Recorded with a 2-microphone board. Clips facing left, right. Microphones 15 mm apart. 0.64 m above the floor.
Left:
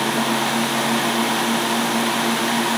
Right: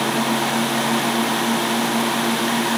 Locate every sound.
Only background noise.